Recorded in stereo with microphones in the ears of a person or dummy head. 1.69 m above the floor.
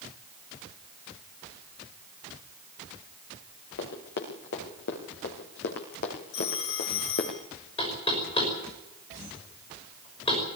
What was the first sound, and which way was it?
Running footsteps, 60° left (ahead or behind).